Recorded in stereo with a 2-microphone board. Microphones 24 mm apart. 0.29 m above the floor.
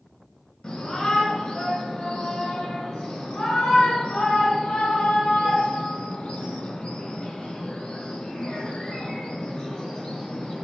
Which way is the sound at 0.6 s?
35° left (ahead or behind).